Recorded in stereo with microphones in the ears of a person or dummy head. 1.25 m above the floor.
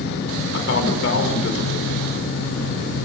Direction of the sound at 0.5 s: 75° left (ahead or behind).